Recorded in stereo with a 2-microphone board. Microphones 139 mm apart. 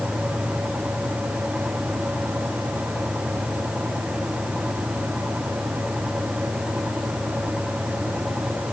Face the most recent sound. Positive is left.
No sound to turn to.